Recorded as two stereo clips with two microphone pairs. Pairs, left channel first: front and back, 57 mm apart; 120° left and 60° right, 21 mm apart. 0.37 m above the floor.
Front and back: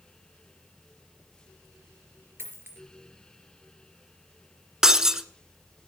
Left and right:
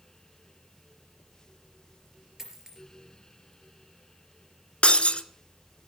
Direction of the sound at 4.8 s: 100° left.